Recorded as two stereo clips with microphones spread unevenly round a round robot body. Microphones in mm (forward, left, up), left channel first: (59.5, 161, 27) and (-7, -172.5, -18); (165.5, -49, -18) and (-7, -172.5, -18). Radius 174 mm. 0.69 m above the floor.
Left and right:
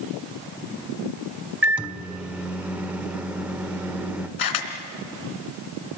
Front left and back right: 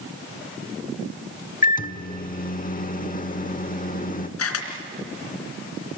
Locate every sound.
1.6 s a microwave: 15° right, 1.4 m
4.4 s a camera shutter: 50° left, 3 m